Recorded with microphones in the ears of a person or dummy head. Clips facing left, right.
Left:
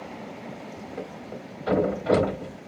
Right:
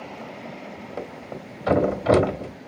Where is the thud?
60° right (ahead or behind), 1.4 m.